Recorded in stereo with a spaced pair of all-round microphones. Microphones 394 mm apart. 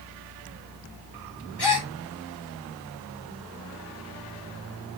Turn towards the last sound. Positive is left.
turn(degrees=75)  # may be behind; listen again after turning